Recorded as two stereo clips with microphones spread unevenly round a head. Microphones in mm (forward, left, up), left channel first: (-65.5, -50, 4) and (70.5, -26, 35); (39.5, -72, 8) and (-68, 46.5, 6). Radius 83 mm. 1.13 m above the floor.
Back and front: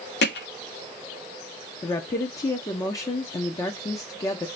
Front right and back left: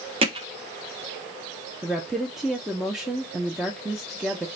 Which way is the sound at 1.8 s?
140° right.